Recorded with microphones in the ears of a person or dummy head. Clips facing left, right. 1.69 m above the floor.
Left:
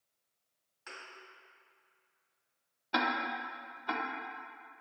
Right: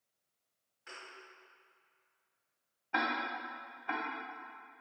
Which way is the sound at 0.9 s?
60° left (ahead or behind).